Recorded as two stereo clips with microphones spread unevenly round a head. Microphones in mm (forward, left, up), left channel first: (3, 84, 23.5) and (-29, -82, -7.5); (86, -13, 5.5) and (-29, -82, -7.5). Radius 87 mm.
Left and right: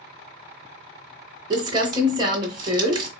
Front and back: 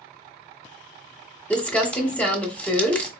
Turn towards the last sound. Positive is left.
turn(degrees=-35)